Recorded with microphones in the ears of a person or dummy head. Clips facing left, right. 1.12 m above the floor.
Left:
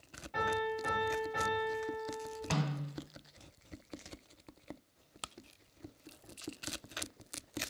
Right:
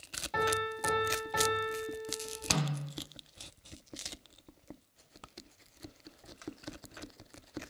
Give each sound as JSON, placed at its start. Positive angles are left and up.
{"t": 0.3, "sound": "a piano", "side_deg": -70, "distance_m": 1.2}
{"t": 2.5, "sound": "a snare drum", "side_deg": 0, "distance_m": 1.5}